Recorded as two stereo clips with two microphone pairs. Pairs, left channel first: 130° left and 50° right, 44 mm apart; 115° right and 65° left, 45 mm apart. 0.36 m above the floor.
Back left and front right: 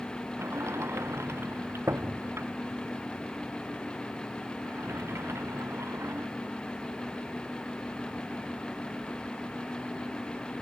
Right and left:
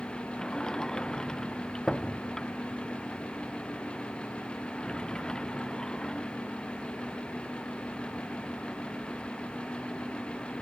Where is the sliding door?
40° right.